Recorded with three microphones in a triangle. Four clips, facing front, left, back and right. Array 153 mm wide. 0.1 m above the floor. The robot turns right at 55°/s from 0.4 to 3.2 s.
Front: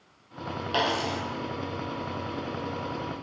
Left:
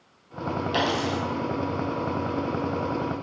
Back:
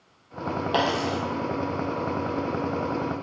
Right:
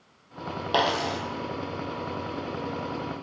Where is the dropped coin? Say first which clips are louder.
Right 2 dB, back 2 dB; 135° right, 0.9 m; by 1.2 s 110° right, 0.9 m.